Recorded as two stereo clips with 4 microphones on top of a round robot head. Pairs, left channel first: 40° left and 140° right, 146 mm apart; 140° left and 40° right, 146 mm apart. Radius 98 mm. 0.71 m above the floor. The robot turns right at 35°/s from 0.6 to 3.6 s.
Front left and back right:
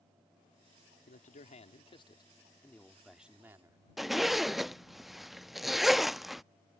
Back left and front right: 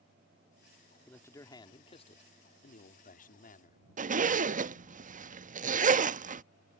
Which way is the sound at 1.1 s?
60° left.